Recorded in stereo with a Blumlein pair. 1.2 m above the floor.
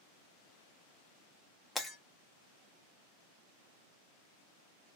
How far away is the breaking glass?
About 0.8 m.